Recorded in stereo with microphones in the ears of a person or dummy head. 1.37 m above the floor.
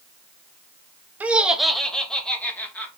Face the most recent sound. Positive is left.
turn(degrees=10)  # may be behind; listen again after turning